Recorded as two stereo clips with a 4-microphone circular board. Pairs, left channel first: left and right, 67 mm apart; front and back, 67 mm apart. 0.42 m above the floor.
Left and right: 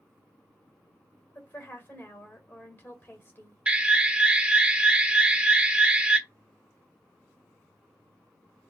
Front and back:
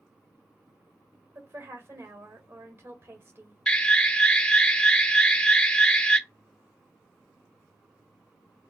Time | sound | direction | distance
1.4 | a woman speaking | 135° left | 1.6 m
3.7 | an alarm | 50° right | 0.6 m